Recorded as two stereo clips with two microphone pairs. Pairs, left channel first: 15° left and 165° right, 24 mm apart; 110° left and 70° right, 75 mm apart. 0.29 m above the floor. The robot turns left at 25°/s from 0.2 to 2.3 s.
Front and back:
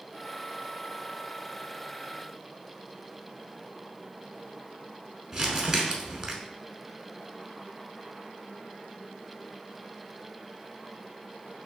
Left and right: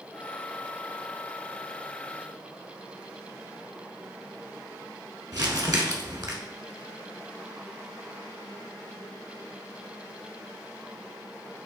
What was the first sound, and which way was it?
Crumpling, 95° right.